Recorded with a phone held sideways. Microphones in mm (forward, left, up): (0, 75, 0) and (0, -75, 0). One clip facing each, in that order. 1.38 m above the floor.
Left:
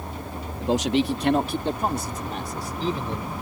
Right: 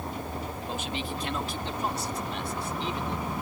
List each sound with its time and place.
0.6 s a man speaking: 85° left; by 3.3 s 35° left (ahead or behind)